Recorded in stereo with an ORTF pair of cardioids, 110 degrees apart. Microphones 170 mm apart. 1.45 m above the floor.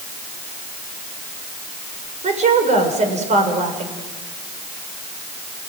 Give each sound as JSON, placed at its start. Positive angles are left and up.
{"t": 2.2, "sound": "a woman speaking", "azimuth_deg": -45, "distance_m": 6.5}